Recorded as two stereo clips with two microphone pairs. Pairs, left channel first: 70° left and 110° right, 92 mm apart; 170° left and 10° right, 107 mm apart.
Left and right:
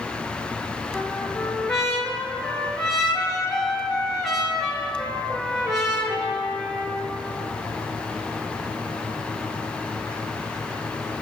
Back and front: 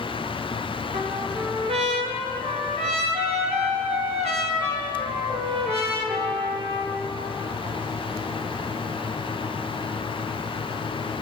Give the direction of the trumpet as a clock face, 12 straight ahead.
1 o'clock.